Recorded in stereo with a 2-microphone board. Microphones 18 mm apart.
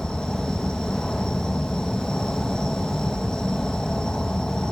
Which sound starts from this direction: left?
An insect, at 0.0 s.